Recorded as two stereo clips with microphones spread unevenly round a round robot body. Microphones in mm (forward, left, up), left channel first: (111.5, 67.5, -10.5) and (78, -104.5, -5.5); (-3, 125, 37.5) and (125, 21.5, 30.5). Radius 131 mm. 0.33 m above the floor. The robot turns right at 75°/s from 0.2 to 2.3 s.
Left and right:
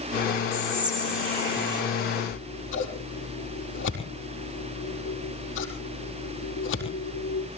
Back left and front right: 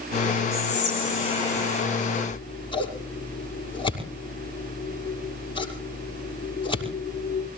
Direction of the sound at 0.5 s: Straight behind.